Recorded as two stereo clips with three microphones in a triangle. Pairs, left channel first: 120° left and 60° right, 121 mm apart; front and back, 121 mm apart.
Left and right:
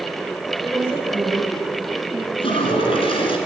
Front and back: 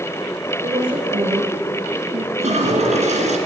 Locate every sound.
0.6 s a woman speaking: 140° right, 6.5 m; by 2.3 s 135° right, 7.5 m
2.4 s a toilet flushing: 160° left, 2.5 m